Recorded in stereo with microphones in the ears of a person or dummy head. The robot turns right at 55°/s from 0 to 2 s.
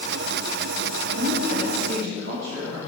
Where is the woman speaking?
120° right, 2.5 m; by 2.8 s 70° right, 2.5 m.